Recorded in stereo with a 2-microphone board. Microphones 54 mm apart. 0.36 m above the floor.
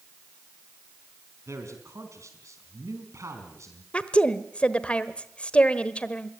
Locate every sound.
1.5 s a man speaking: 70° right (ahead or behind), 4 m; by 3.8 s 65° right (ahead or behind), 4 m
3.9 s a woman speaking: 25° left (ahead or behind), 1.2 m